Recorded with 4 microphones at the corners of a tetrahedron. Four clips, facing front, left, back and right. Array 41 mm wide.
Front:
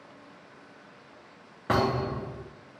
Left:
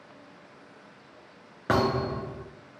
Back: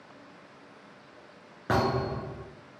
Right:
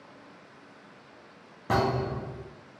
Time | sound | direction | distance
1.7 | a thud | 80° left | 2 m